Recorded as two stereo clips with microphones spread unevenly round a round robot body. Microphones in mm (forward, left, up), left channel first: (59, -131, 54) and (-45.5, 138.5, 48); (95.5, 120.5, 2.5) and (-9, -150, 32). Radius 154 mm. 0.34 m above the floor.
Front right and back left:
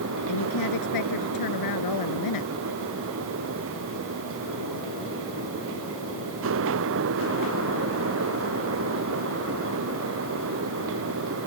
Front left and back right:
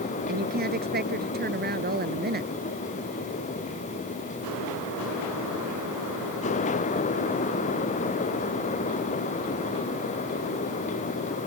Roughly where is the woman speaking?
Ahead right.